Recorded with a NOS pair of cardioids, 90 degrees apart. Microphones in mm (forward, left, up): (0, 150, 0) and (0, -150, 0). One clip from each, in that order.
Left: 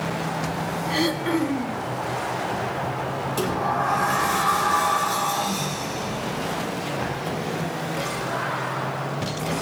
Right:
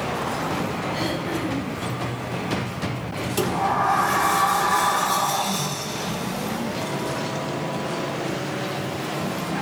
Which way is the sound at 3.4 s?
35° right.